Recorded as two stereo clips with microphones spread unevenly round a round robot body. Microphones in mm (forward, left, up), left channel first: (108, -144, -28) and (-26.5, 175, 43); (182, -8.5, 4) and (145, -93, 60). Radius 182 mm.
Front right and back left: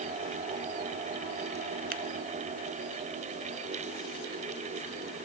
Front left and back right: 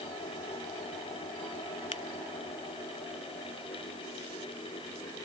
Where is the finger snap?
55° left.